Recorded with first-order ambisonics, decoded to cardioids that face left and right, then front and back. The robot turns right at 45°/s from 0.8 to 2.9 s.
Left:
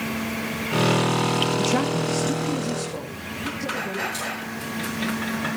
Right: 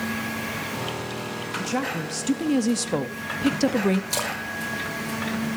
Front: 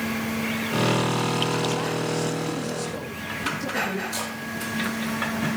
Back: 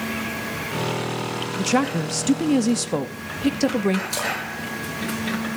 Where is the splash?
115° right, 5 m.